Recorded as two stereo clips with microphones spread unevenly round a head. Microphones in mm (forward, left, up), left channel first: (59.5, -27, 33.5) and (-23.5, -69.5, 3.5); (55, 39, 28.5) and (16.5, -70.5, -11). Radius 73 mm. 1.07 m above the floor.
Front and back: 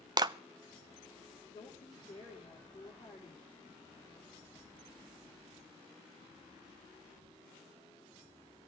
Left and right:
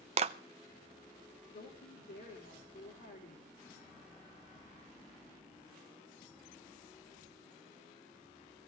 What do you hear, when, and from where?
0.2 s a clap: 125° right, 0.6 m
1.5 s a woman speaking: 85° left, 3 m